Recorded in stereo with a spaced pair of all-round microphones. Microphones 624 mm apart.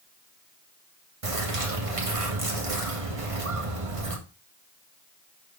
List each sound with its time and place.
1.2 s a bird: 60° right (ahead or behind), 1.5 m